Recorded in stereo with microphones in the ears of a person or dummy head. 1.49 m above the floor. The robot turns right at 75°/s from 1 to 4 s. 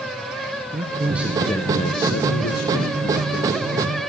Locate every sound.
0.7 s a man speaking: 20° right, 1.4 m; by 4.0 s 155° right, 1.4 m